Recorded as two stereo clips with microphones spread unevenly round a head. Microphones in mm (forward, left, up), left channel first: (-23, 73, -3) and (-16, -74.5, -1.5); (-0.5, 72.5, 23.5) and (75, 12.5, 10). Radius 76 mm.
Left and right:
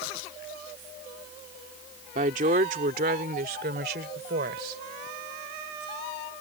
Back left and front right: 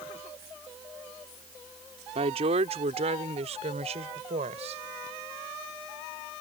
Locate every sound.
2.1 s a woman speaking: 45° right; by 4.8 s 60° right